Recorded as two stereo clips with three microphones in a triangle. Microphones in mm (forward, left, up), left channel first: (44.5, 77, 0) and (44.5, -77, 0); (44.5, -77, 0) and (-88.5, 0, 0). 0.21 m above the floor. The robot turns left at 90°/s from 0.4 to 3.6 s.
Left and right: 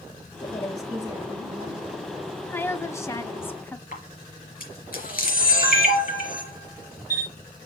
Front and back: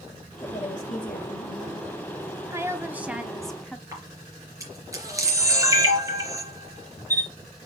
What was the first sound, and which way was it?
A woman speaking, 35° left.